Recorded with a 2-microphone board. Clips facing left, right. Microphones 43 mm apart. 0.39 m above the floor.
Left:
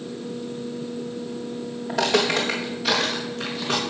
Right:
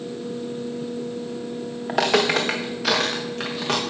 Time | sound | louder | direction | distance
1.9 | footsteps | right 2 dB | 80° right | 1.9 m